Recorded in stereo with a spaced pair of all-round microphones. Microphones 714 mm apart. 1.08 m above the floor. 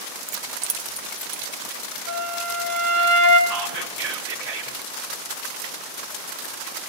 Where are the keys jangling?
55° right (ahead or behind), 0.6 m; by 2.0 s 40° right (ahead or behind), 2.5 m.